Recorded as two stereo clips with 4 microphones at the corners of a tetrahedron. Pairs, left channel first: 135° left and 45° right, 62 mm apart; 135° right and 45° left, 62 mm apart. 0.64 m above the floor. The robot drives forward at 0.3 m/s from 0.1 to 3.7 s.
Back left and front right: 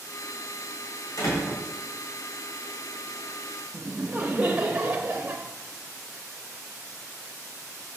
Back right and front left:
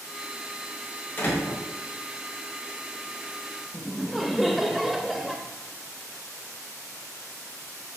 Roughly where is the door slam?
Behind.